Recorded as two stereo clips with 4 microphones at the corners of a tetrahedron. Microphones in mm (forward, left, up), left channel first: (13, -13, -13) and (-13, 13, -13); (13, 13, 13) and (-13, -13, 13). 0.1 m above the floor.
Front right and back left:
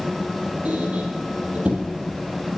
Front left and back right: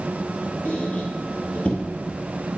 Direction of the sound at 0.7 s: 95° left.